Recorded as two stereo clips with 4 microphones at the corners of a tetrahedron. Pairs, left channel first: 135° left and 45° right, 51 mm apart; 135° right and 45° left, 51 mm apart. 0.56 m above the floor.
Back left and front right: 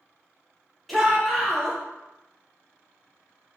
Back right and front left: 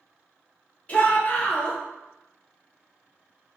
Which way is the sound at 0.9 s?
145° right.